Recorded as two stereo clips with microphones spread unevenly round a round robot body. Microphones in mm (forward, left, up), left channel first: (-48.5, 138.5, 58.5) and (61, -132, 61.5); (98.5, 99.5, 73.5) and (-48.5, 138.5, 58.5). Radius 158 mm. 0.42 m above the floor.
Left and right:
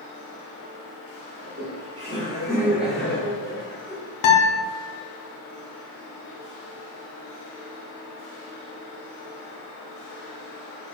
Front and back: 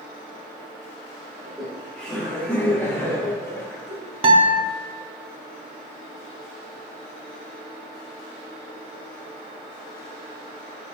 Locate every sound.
1.4 s laughter: 105° right, 1.3 m; by 4.0 s 60° left, 1.2 m
4.2 s a guitar: 110° left, 0.7 m